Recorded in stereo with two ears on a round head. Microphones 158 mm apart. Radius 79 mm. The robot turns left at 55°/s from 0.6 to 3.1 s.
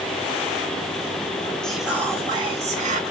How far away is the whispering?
About 1.2 m.